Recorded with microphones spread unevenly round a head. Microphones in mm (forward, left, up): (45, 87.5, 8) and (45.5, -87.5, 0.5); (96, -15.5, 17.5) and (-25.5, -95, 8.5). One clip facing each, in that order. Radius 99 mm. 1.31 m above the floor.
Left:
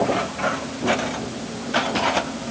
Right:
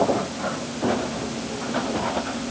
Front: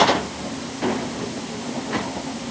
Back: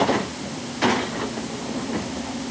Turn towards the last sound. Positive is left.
No sound to turn to.